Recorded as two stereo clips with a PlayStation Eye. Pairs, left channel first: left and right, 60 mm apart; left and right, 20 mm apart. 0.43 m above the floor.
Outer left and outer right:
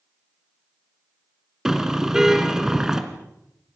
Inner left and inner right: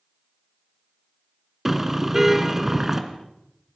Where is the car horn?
10° right (ahead or behind), 2.5 m.